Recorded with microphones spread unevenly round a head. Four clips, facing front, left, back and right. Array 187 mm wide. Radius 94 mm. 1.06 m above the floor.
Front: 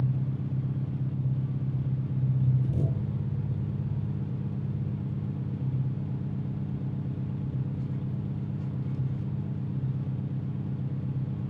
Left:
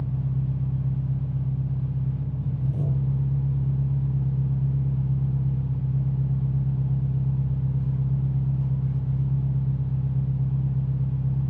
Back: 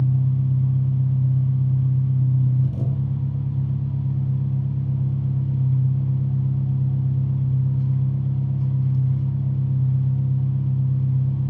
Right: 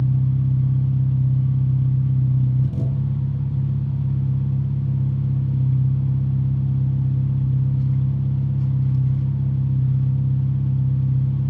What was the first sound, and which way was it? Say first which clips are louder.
An engine running: right 7 dB, back 8 dB; 115° right.